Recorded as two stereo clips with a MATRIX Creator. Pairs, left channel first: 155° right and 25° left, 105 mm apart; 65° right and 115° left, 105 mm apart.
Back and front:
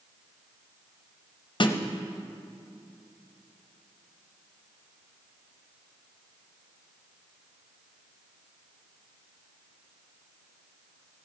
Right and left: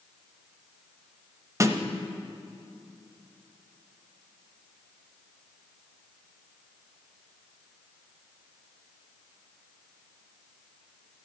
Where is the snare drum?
170° left, 0.7 m.